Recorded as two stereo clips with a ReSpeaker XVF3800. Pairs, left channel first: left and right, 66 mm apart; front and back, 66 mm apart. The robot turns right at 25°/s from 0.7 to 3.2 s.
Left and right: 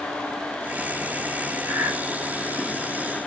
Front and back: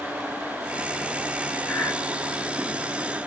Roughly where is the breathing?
Ahead right.